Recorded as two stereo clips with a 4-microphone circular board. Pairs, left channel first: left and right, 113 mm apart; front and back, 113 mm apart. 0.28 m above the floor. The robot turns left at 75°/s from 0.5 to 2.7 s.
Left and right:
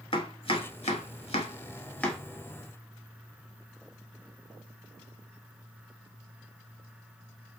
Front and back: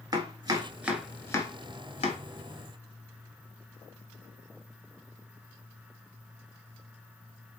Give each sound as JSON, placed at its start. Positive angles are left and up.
{"t": 0.1, "sound": "chopping", "azimuth_deg": 125, "distance_m": 0.8}